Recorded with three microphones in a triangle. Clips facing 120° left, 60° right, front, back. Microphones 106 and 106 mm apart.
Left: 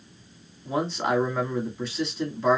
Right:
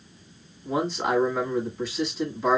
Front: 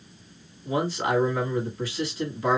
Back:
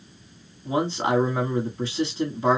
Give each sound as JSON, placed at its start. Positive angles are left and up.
{"t": 0.7, "sound": "a man speaking", "azimuth_deg": -150, "distance_m": 1.3}